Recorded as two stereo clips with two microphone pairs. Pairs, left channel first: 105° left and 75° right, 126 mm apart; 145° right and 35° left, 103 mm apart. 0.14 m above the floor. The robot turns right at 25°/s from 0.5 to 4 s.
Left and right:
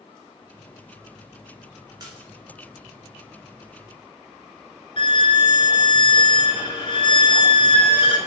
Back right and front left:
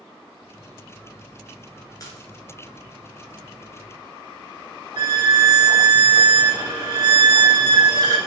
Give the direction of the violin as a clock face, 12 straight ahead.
10 o'clock.